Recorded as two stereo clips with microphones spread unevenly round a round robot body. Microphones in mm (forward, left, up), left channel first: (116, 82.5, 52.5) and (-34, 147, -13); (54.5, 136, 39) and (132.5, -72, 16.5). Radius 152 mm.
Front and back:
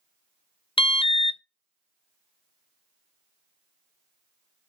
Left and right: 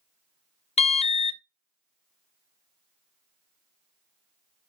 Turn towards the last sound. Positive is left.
turn(degrees=45)